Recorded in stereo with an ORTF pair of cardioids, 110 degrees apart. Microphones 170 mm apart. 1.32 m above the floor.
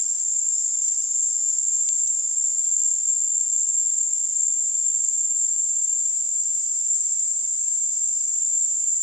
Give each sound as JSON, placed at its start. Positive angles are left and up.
{"t": 0.0, "sound": "an insect", "azimuth_deg": -20, "distance_m": 3.0}